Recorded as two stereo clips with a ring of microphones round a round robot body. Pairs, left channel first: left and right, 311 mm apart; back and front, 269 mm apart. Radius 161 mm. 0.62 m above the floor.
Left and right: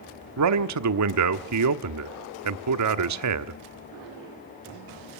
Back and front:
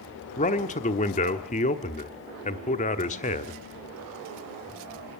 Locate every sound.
0.4 s a man speaking: 115° right, 1.2 m